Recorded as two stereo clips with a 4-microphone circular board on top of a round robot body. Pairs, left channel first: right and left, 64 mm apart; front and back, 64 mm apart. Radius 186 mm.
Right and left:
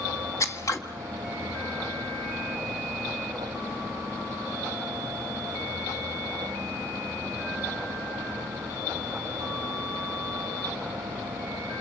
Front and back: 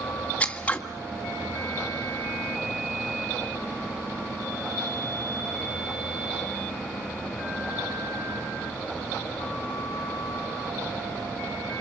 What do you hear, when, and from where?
0.4 s scissors: 65° right, 1.7 m